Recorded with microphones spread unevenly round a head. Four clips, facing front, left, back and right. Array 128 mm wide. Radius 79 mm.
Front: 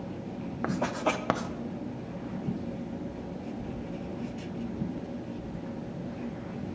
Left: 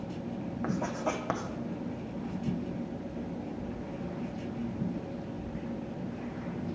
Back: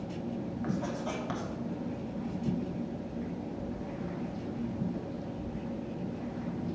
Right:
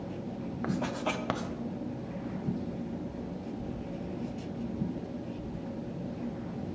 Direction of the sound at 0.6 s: 5° left.